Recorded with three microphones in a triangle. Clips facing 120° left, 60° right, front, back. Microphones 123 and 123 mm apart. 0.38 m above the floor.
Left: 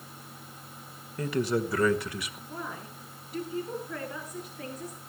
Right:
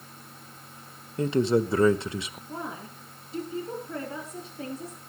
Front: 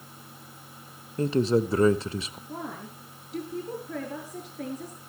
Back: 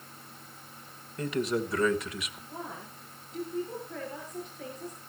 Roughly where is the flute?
No flute in this recording.